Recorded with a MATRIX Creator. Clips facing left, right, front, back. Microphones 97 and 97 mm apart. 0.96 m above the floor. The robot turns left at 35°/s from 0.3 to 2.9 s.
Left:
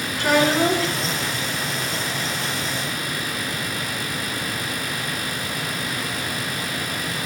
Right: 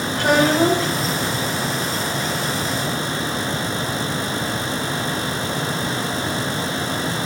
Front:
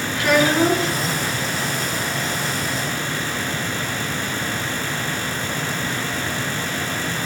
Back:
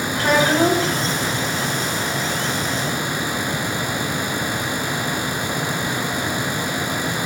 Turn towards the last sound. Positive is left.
turn(degrees=145)